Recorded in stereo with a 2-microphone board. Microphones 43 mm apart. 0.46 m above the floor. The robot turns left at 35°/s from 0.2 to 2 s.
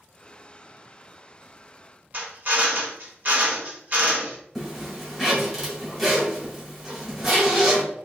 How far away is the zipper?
About 1.5 m.